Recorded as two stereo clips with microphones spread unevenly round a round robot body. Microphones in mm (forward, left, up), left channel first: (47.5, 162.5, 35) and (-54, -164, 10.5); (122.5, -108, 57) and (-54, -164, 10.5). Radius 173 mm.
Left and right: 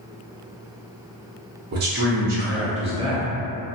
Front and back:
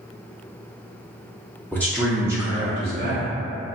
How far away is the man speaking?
About 0.6 m.